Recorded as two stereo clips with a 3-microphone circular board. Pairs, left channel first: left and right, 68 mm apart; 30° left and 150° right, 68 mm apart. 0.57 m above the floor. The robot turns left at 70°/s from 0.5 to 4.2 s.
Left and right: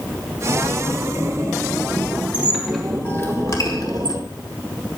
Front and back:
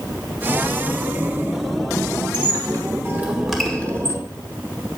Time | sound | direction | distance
2.3 | a squeak | 155° right | 1.6 m